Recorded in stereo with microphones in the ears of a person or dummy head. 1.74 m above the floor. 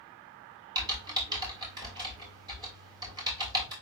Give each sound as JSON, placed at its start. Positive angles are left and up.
{"t": 0.8, "sound": "typing on a keyboard", "side_deg": -20, "distance_m": 2.0}